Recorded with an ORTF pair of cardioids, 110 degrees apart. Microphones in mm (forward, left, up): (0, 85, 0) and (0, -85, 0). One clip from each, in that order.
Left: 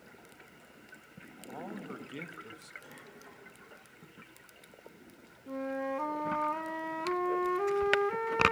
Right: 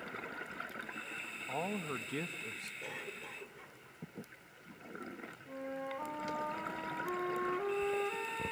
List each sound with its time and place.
1.5 s a man speaking: 40° right, 1.5 m; by 2.7 s 15° right, 1.1 m
2.8 s a cough: 55° right, 5 m
5.5 s a flute: 40° left, 1.4 m